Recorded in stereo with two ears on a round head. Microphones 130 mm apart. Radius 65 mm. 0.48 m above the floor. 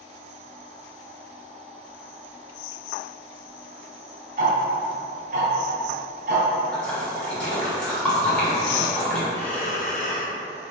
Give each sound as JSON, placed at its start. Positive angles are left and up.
{"t": 4.4, "sound": "ticking", "side_deg": -65, "distance_m": 1.7}
{"t": 6.7, "sound": "a splash", "side_deg": 5, "distance_m": 1.4}
{"t": 9.3, "sound": "breathing", "side_deg": 45, "distance_m": 1.9}